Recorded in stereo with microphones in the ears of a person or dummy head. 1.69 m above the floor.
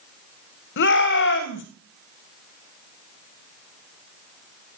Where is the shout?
60° left (ahead or behind), 2 m.